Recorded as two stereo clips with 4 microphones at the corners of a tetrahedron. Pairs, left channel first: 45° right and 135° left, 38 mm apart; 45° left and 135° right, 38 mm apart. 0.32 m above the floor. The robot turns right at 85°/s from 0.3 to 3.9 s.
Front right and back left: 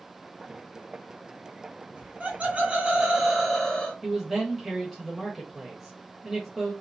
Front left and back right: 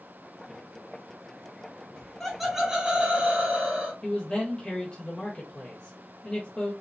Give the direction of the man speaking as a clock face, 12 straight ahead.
11 o'clock.